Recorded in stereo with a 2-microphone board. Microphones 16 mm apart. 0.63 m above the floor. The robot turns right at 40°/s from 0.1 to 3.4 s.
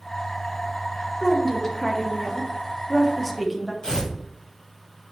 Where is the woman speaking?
80° left, 0.8 m; by 3.7 s 170° left, 0.8 m.